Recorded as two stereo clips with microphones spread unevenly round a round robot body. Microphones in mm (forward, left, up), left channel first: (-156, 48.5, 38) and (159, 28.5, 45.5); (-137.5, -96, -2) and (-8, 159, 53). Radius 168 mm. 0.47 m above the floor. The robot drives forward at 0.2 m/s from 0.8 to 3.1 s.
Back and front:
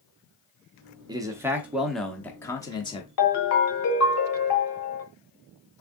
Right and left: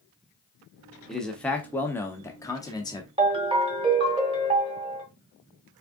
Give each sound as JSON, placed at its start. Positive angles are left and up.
{"t": 1.1, "sound": "a man speaking", "azimuth_deg": -60, "distance_m": 0.8}
{"t": 3.2, "sound": "a ringtone", "azimuth_deg": 140, "distance_m": 1.5}